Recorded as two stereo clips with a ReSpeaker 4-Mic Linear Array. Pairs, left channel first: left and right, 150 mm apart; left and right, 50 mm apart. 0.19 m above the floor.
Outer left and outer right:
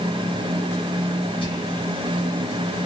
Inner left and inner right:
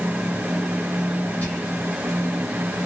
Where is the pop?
No pop in this recording.